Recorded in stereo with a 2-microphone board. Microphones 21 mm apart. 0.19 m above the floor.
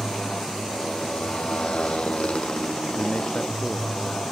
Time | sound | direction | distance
0.0 | a motorcycle | 65° left (ahead or behind) | ?
3.0 | a man speaking | 70° left (ahead or behind) | ?